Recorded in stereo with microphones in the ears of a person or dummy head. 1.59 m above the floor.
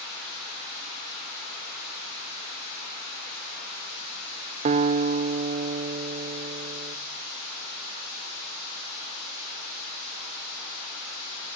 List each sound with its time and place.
4.7 s a guitar: 35° right (ahead or behind), 0.7 m